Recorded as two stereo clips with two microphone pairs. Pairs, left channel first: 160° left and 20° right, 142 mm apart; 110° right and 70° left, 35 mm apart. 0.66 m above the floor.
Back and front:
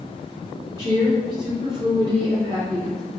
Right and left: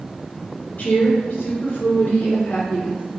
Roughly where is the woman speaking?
Right.